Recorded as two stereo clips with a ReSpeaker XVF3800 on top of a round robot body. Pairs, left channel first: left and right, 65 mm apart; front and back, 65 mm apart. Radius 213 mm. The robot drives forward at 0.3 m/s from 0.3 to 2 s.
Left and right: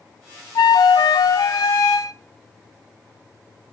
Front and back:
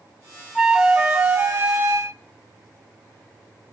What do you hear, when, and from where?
0.6 s a flute: 90° left, 0.7 m; by 2.1 s 125° left, 0.8 m